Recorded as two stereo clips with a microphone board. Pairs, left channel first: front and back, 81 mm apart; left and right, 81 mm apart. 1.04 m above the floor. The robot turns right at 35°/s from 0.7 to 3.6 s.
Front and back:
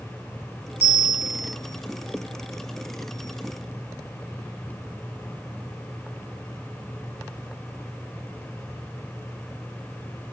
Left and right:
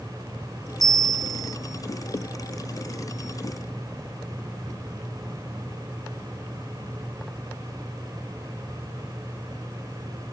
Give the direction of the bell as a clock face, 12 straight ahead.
4 o'clock.